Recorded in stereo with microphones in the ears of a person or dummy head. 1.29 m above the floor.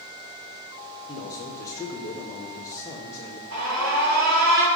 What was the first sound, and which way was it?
A man speaking, 25° left (ahead or behind).